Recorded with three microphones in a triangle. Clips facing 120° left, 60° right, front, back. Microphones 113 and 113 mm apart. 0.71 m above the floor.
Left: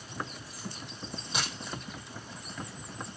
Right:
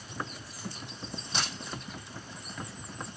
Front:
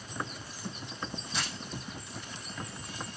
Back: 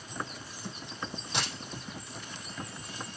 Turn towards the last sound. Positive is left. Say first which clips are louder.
# even, back 3 dB
turn(degrees=-155)